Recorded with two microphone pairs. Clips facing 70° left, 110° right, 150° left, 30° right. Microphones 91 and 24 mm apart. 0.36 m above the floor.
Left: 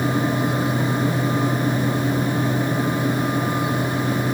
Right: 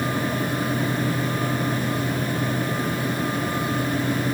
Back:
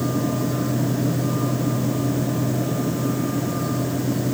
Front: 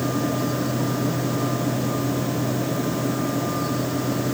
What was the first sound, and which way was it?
Only background noise.